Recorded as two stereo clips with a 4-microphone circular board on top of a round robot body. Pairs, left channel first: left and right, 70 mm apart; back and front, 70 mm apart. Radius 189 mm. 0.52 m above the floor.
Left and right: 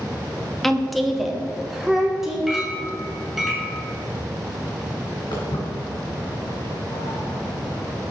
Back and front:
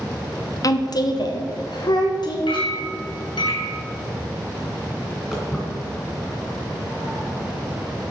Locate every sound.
0.6 s a woman speaking: 175° left, 1.1 m; by 2.4 s 175° right, 2.5 m
2.5 s a clink: 175° right, 3 m
5.3 s footsteps: 95° left, 3.5 m; by 8.1 s 70° left, 1.9 m